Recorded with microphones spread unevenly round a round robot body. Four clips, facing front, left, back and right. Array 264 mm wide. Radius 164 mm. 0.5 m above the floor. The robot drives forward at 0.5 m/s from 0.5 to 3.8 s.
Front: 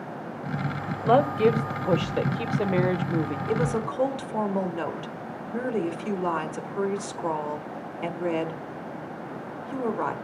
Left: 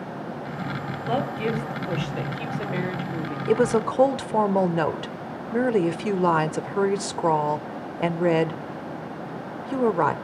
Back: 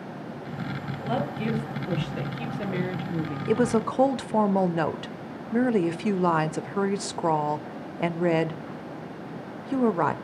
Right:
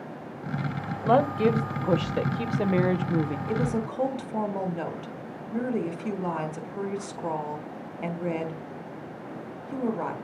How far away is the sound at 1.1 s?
About 3 m.